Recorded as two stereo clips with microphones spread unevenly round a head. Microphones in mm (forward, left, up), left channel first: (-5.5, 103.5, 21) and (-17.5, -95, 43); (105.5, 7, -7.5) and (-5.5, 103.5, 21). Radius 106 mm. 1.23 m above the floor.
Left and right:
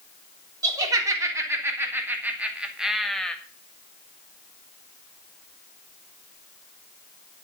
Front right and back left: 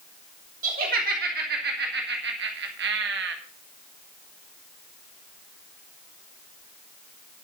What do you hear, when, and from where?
0.6 s laughter: 165° right, 3.5 m; by 3.4 s 170° left, 2.0 m